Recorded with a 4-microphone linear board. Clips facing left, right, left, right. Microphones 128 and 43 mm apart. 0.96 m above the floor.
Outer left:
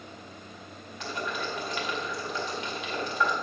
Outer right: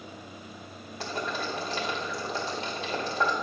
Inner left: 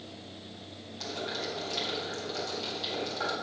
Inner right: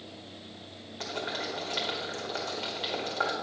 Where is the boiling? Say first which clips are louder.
Outer right 1 dB, inner right 1 dB; 35° right (ahead or behind), 1.9 m.